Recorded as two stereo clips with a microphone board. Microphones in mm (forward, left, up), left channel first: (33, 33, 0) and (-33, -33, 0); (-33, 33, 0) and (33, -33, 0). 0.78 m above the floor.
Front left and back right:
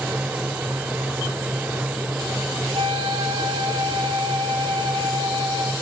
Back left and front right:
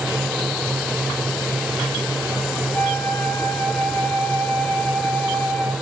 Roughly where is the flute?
Behind.